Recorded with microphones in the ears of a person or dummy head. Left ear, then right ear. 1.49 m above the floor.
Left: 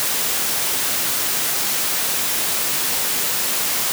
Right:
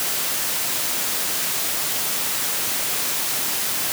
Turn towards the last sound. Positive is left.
No sound to turn to.